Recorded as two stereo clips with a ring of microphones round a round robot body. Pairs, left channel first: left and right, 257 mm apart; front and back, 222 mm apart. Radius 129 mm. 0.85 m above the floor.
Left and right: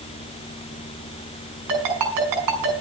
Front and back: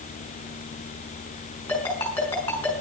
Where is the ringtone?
85° right, 5 m.